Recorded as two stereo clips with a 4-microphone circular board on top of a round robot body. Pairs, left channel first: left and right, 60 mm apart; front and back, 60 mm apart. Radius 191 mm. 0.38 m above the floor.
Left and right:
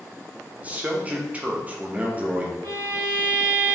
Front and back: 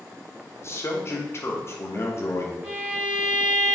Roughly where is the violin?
Right.